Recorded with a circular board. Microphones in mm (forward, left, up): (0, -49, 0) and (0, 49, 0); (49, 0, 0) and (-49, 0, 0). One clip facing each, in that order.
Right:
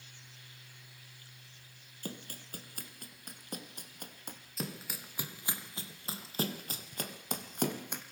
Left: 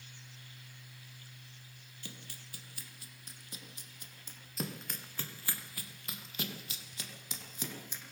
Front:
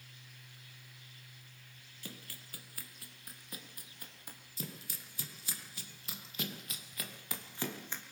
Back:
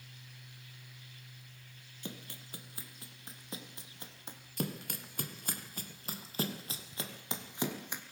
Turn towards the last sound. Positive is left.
turn(degrees=-105)